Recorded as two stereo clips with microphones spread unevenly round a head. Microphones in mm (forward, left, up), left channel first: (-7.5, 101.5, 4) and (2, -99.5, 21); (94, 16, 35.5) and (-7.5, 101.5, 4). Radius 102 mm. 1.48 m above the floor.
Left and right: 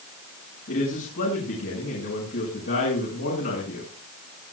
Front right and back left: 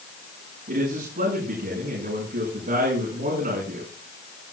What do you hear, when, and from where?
0.7 s a man speaking: 120° left, 6 m